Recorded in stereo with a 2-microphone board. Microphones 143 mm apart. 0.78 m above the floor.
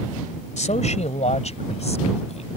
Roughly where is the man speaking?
Left.